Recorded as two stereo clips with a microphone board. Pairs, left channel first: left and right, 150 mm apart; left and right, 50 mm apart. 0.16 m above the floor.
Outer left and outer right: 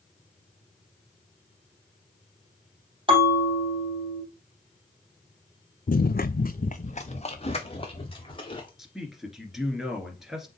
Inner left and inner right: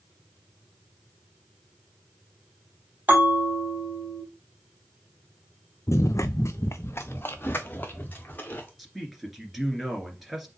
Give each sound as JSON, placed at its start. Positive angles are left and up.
{"t": 3.1, "sound": "a bell", "side_deg": -35, "distance_m": 4.0}
{"t": 5.9, "sound": "running footsteps", "side_deg": 65, "distance_m": 0.5}
{"t": 8.8, "sound": "a man speaking", "side_deg": 0, "distance_m": 1.9}